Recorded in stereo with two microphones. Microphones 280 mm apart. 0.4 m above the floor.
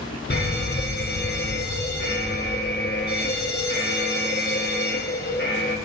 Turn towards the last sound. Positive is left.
turn(degrees=40)  # may be behind; listen again after turning